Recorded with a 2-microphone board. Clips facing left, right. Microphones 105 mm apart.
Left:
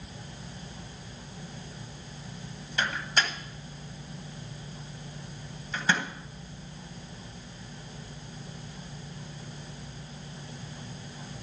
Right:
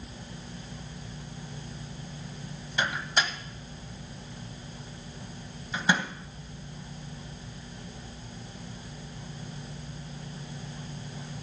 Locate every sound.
2.8 s a microwave: 15° right (ahead or behind), 1.2 m